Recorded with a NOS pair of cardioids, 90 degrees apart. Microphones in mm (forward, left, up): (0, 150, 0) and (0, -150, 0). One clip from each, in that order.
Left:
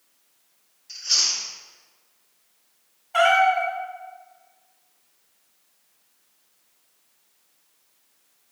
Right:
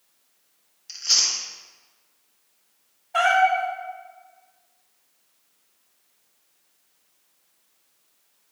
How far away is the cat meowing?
About 1.5 m.